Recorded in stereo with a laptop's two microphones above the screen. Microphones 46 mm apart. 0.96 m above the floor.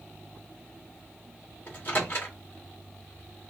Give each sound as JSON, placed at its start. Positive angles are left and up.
{"t": 1.7, "sound": "a microwave", "side_deg": 45, "distance_m": 1.5}